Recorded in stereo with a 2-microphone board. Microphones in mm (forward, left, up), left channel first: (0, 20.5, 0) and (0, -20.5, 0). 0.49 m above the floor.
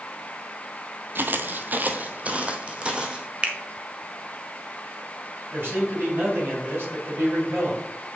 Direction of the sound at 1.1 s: 55° right (ahead or behind).